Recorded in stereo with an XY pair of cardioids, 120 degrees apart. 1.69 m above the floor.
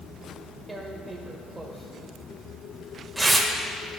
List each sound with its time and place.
0.7 s tearing paper: 20° right, 0.9 m